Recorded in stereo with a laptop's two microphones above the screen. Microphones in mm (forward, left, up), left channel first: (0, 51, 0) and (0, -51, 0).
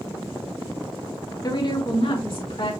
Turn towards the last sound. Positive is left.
turn(degrees=60)  # may be behind; listen again after turning